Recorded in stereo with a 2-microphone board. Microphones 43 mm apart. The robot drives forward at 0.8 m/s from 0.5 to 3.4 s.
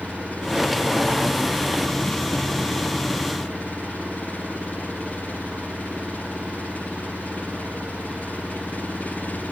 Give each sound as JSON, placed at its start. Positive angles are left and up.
{"t": 0.0, "sound": "an engine running", "side_deg": 35}